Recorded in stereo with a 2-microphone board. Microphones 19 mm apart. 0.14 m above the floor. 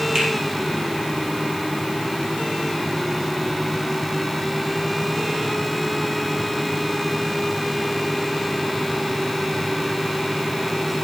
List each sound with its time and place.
0.1 s a finger snap: 45° right (ahead or behind), 4 m